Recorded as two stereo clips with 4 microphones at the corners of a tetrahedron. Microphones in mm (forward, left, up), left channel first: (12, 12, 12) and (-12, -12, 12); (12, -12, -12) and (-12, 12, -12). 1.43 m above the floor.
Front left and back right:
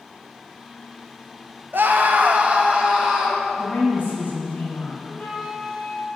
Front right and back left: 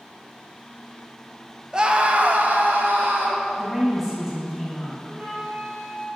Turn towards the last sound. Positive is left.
turn(degrees=100)